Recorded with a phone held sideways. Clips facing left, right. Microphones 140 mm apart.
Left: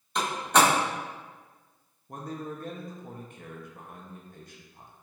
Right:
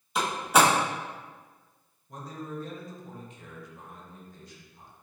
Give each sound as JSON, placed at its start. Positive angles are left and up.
{"t": 0.1, "sound": "a door slam", "side_deg": -5, "distance_m": 1.4}
{"t": 2.1, "sound": "a man speaking", "side_deg": 55, "distance_m": 0.7}